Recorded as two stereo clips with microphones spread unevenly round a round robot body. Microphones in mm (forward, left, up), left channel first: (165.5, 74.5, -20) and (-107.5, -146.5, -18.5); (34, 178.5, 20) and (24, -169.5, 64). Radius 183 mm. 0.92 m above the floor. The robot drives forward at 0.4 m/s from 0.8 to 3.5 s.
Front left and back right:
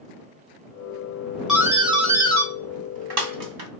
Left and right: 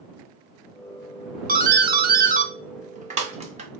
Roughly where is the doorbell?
Ahead right.